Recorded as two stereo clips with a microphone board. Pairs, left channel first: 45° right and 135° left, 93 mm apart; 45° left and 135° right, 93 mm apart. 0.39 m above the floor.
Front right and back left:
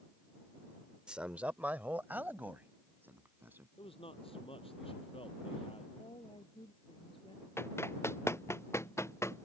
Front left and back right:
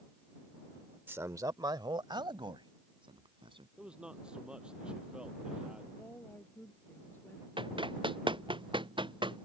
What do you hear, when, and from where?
1.1 s a man speaking: 155° right
3.8 s a man speaking: 55° right
6.0 s a woman speaking: 25° right
7.6 s running footsteps: 110° right; by 9.4 s 105° right